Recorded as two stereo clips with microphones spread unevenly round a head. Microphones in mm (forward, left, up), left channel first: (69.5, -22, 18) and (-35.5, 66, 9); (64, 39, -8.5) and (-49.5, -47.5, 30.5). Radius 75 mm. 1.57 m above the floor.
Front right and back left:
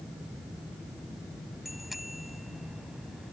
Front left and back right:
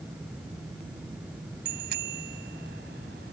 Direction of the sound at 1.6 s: 130° right.